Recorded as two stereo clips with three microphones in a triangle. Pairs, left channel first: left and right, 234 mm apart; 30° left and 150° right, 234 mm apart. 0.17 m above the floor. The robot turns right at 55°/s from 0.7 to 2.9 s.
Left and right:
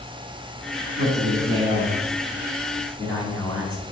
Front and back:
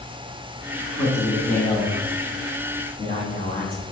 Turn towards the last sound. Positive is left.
turn(degrees=30)